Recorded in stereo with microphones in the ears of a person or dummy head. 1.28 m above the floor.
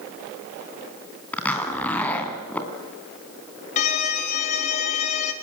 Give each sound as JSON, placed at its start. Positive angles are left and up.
{"t": 1.3, "sound": "a zipper", "side_deg": 10, "distance_m": 3.5}
{"t": 3.8, "sound": "a violin", "side_deg": 45, "distance_m": 2.5}